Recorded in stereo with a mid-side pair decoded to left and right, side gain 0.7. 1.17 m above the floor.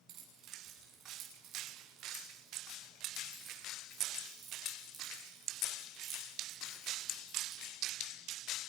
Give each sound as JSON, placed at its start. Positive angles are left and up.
{"t": 0.1, "sound": "keys jangling", "azimuth_deg": -50, "distance_m": 8.0}